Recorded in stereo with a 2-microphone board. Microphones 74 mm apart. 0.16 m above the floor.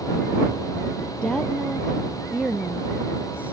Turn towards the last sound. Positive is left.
turn(degrees=-20)  # may be behind; listen again after turning